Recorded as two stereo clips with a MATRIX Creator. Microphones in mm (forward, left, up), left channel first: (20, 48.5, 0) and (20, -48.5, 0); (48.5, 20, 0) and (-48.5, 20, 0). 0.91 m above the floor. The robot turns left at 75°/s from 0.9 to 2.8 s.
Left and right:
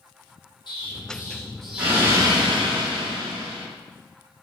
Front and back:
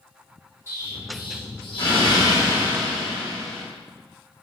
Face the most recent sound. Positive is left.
turn(degrees=-85)